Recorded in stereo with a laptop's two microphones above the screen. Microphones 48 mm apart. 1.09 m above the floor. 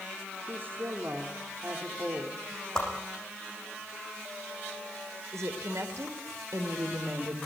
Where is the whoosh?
15° left (ahead or behind), 8.5 m.